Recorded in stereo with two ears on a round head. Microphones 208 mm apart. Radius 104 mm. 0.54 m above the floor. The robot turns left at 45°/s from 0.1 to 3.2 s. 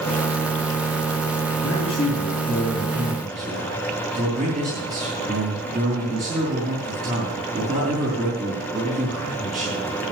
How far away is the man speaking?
About 5 m.